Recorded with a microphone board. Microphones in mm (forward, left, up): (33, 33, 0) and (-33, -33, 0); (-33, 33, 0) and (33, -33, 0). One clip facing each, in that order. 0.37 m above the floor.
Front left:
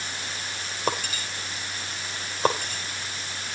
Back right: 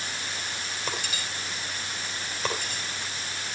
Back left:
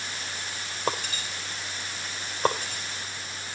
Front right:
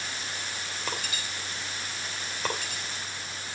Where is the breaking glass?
80° left, 4 m.